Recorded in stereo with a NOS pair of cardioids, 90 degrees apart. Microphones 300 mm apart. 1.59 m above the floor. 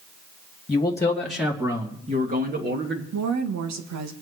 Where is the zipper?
I don't hear a zipper.